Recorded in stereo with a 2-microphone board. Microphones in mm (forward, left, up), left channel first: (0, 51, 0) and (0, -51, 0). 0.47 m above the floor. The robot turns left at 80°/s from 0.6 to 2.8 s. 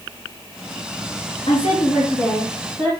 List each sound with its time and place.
1.5 s a woman speaking: 65° left, 4 m; by 2.9 s 40° right, 4 m